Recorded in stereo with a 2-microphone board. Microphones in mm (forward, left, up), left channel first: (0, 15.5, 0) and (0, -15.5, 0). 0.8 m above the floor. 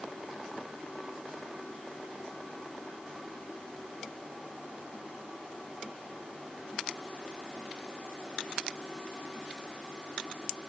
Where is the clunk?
No clunk in this recording.